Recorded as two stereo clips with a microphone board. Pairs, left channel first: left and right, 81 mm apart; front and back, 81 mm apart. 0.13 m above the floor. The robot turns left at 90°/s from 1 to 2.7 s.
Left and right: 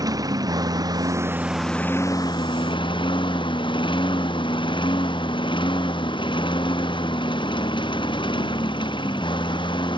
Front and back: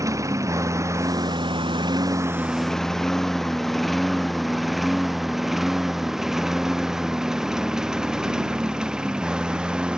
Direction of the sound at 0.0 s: 130° right.